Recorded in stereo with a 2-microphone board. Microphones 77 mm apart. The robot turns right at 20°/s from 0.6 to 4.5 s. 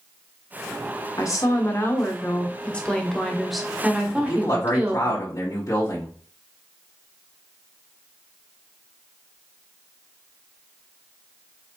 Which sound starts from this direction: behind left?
A woman speaking, at 1.2 s.